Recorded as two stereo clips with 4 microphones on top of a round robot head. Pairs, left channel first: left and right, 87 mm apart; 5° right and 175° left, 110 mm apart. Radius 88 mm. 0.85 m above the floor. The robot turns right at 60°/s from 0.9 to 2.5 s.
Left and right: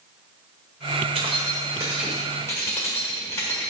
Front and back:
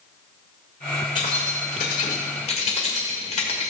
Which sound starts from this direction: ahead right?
Keys jangling, at 1.1 s.